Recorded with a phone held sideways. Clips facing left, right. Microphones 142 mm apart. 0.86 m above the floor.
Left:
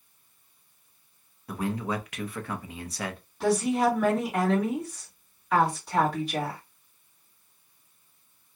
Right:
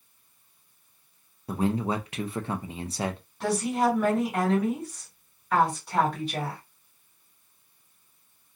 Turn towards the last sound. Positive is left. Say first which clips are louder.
# left 2 dB
turn(degrees=-5)  # may be behind; listen again after turning